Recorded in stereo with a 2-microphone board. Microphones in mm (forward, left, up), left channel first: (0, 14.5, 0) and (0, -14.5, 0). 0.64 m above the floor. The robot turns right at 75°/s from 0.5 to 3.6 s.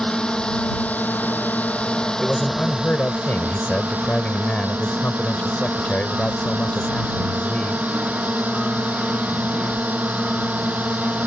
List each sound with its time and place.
0.0 s a drone: 35° left; by 11.3 s 90° right
2.2 s a man speaking: 20° left; by 7.8 s 130° left